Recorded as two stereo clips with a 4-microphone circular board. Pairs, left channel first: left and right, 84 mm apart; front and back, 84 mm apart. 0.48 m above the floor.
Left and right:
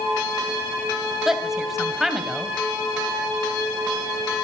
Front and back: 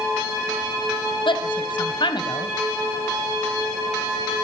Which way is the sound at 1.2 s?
5° right.